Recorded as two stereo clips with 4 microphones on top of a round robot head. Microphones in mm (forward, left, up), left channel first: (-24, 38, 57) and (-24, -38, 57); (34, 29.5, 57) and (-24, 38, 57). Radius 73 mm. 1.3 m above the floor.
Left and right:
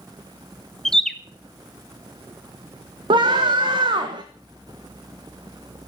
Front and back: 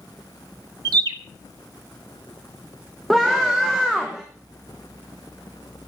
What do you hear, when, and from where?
0.8 s a bird: 175° left, 0.8 m
3.1 s a scream: 100° right, 1.5 m